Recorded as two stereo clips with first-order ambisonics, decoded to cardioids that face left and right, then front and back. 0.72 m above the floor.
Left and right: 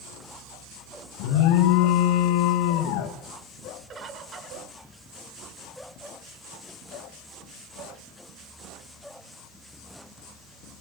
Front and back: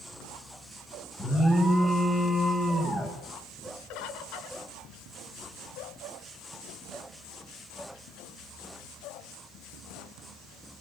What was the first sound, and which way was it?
An alarm, 80° left.